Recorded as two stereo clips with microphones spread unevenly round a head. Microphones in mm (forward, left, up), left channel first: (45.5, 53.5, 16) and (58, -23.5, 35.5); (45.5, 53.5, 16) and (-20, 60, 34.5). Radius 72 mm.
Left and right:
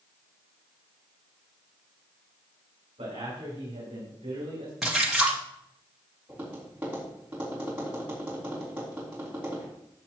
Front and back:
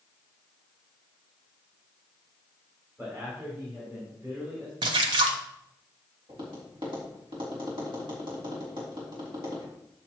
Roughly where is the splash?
Behind.